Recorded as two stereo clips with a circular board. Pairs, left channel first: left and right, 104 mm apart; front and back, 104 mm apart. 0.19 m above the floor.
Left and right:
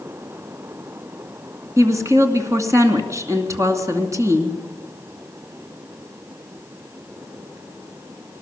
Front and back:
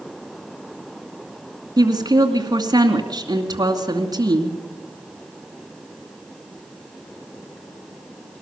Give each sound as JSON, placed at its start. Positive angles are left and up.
{"t": 1.8, "sound": "a woman speaking", "azimuth_deg": -145, "distance_m": 2.5}